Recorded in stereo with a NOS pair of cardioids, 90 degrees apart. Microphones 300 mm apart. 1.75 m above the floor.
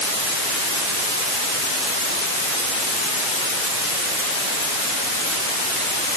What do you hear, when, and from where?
Only background noise.